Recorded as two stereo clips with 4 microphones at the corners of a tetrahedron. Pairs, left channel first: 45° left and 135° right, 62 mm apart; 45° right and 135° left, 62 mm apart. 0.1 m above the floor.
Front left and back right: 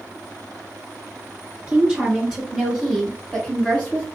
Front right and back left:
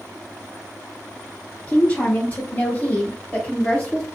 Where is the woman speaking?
80° right, 1.8 m; by 4.1 s straight ahead, 1.8 m.